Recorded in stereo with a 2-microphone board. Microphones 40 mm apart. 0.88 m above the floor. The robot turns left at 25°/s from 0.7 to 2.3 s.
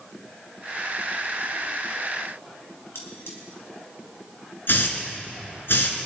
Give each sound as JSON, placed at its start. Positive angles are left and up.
{"t": 3.0, "sound": "cutlery clinking", "side_deg": 80, "distance_m": 3.5}
{"t": 4.7, "sound": "a hiss", "side_deg": 60, "distance_m": 2.0}